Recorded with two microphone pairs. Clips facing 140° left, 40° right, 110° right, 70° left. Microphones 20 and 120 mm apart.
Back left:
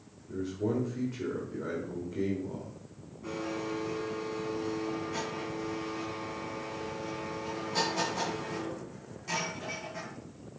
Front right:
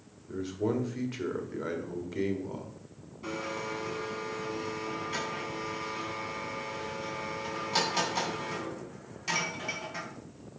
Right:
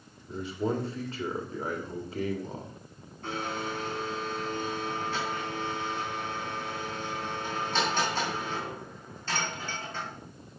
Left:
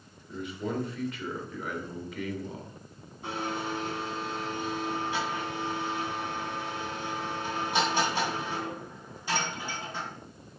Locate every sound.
0.3 s a man speaking: 70° right, 1.8 m
3.2 s a blender: 10° right, 3 m